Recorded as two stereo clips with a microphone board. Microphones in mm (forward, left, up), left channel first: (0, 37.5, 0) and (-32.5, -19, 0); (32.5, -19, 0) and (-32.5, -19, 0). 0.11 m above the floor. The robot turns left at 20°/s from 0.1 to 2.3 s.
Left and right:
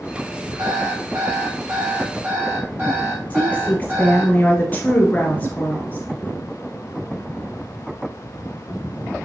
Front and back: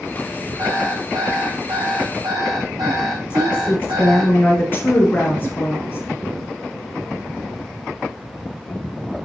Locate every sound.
0.6 s an alarm clock: 145° right, 4 m; by 4.3 s straight behind, 4 m
3.3 s a woman speaking: 20° left, 1.8 m